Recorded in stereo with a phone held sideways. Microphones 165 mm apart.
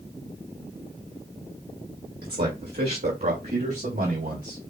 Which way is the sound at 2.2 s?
70° right (ahead or behind).